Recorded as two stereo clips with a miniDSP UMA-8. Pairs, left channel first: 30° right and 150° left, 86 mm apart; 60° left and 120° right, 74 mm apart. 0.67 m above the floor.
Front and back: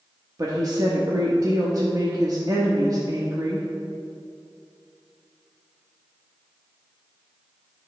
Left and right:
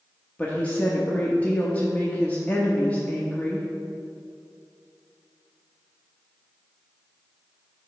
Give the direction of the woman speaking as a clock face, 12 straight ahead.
8 o'clock.